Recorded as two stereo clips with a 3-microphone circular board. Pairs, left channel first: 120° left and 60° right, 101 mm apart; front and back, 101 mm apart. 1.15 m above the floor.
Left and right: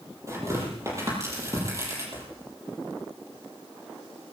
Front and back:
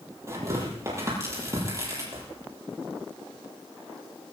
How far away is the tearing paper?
About 8 m.